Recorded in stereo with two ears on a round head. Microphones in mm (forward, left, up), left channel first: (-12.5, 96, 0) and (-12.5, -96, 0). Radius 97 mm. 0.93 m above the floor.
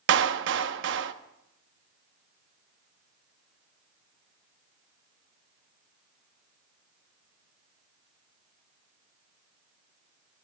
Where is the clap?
55° right (ahead or behind), 0.9 m.